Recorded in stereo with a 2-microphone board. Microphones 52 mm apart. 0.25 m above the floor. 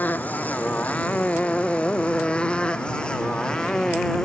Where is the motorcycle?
35° left (ahead or behind); by 4.2 s 15° left (ahead or behind).